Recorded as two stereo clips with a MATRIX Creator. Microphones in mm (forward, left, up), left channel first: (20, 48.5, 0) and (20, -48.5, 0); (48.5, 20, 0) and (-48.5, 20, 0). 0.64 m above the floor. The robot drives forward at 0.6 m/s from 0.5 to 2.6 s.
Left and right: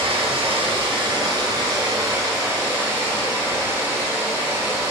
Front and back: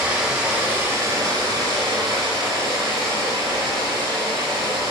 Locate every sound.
0.0 s running water: 105° right, 0.8 m; by 4.9 s 150° right, 1.7 m